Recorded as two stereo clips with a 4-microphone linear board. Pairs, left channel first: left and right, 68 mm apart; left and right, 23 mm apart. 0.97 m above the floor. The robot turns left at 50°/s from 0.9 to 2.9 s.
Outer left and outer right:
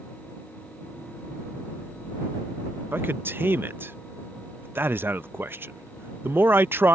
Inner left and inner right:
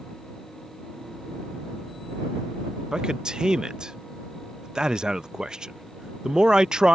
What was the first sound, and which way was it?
A man speaking, 35° right (ahead or behind).